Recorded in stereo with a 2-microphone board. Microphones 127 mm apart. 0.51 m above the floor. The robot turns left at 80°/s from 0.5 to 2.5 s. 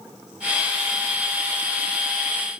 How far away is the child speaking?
I don't hear a child speaking.